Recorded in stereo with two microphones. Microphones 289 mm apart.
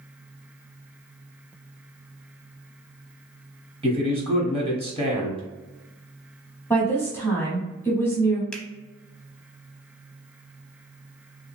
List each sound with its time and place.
3.8 s a man speaking: 20° right (ahead or behind), 1.2 m
6.7 s a woman speaking: 10° left (ahead or behind), 1.1 m
8.5 s a finger snap: centre (ahead or behind), 0.8 m